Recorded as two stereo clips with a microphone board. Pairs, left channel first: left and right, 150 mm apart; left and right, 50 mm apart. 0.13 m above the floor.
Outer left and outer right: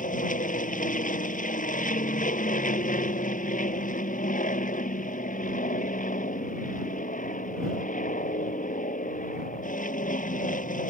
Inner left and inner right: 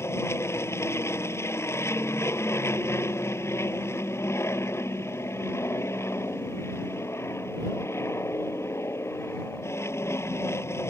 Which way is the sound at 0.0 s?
60° left (ahead or behind).